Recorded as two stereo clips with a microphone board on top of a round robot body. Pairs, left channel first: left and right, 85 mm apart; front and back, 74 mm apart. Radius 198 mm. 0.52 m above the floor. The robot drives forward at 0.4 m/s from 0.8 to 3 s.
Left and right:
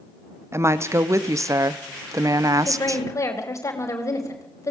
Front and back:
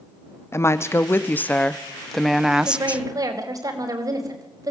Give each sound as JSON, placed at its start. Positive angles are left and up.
{"t": 0.5, "sound": "a woman speaking", "azimuth_deg": -45, "distance_m": 1.1}
{"t": 2.6, "sound": "a woman speaking", "azimuth_deg": 145, "distance_m": 4.0}